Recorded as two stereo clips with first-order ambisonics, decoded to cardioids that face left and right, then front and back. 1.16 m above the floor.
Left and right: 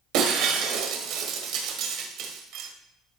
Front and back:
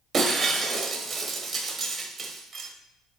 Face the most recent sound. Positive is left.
turn(degrees=-115)